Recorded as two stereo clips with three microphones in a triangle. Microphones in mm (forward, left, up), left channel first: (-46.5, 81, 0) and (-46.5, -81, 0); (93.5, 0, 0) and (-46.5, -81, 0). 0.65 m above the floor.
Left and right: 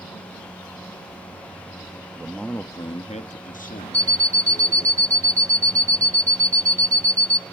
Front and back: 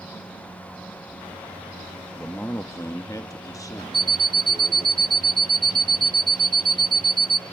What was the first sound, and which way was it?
A man speaking, 45° right.